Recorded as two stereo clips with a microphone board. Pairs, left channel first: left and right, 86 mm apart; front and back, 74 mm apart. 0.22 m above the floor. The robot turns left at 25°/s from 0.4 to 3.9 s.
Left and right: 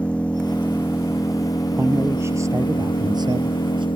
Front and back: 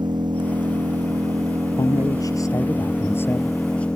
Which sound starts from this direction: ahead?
A man speaking, at 1.8 s.